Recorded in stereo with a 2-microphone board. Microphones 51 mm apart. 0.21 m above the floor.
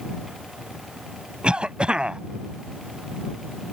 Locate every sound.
1.4 s a cough: 20° right (ahead or behind)